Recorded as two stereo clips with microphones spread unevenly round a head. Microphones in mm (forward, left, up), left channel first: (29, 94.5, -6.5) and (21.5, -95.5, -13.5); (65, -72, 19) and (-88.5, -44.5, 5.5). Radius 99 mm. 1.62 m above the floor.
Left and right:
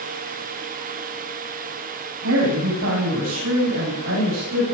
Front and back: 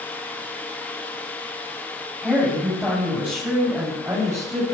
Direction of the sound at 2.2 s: 100° right.